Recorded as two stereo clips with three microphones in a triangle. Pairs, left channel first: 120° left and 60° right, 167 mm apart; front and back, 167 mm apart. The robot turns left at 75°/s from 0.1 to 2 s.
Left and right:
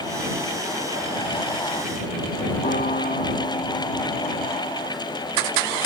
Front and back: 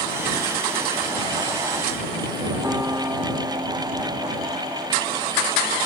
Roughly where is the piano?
Left.